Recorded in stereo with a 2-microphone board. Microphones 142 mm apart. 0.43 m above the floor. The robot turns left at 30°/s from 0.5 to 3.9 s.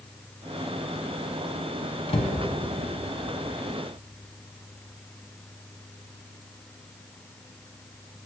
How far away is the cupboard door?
About 0.7 m.